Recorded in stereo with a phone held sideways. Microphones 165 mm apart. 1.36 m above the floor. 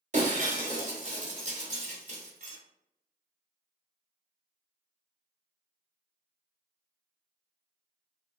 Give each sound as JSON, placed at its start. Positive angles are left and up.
{"t": 0.1, "sound": "breaking glass", "side_deg": -45, "distance_m": 1.0}